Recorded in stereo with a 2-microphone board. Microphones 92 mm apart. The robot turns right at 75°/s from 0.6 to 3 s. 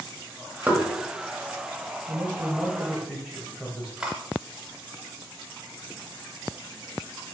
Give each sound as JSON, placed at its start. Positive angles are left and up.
{"t": 0.7, "sound": "knocking", "side_deg": -20, "distance_m": 0.9}
{"t": 2.1, "sound": "a man speaking", "side_deg": -25, "distance_m": 1.1}
{"t": 4.0, "sound": "cutlery clinking", "side_deg": -10, "distance_m": 0.6}